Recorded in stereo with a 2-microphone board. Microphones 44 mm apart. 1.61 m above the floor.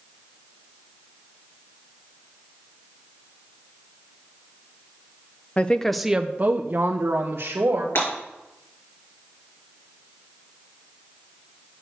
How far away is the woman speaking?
About 0.7 m.